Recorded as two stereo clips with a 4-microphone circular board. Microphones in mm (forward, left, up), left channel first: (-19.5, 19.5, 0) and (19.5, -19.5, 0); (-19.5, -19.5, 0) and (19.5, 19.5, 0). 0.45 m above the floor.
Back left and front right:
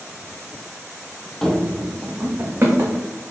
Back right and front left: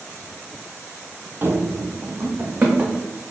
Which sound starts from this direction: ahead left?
Running footsteps, at 1.4 s.